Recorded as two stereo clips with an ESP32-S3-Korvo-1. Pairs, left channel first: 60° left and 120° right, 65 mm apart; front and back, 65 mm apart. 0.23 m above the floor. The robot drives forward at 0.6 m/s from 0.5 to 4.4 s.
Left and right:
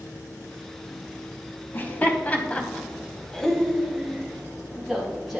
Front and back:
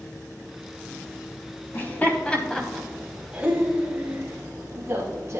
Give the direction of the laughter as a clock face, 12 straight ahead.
11 o'clock.